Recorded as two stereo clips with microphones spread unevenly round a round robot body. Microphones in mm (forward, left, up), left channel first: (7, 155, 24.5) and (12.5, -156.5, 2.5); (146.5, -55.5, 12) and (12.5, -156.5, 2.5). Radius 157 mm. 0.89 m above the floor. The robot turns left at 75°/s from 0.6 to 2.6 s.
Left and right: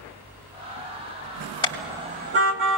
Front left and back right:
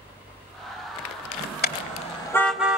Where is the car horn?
15° left, 2 m; by 2.8 s 55° right, 2 m.